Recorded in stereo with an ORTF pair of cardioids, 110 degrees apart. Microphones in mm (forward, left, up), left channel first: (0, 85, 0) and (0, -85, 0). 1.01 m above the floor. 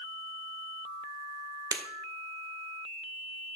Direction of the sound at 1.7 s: 20° right.